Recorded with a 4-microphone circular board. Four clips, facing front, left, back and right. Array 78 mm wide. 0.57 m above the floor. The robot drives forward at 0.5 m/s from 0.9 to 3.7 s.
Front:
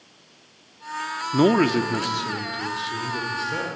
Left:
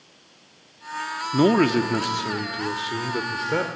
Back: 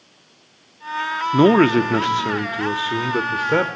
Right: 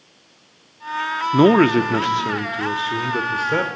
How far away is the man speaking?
About 0.6 m.